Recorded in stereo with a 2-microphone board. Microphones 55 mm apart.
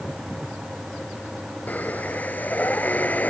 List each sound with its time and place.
1.7 s breathing: 30° left (ahead or behind)